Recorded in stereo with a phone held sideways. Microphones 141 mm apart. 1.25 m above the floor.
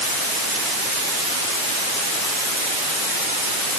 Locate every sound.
Only background noise.